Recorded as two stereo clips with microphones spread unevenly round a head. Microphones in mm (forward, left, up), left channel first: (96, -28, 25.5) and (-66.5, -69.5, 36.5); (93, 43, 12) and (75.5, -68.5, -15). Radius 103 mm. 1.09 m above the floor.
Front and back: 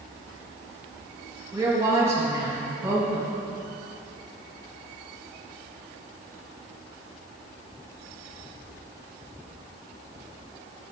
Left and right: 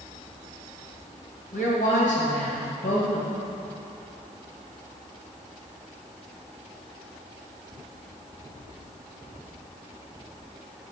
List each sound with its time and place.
1.5 s a woman speaking: 115° left, 1.3 m